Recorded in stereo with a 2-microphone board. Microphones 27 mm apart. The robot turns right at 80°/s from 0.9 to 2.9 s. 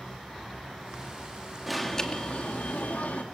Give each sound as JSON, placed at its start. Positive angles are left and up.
{"t": 1.7, "sound": "an alarm", "azimuth_deg": 0, "distance_m": 2.5}